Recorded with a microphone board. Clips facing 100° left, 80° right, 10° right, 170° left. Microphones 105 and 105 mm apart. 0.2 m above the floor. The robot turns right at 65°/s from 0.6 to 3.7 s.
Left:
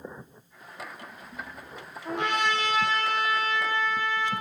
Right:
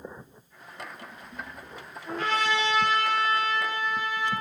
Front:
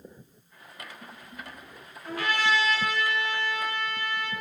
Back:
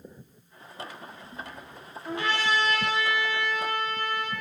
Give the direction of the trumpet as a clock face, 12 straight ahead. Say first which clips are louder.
Even, front 1 dB; 9 o'clock.